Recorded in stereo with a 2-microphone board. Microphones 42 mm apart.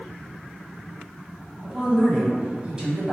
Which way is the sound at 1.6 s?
25° right (ahead or behind).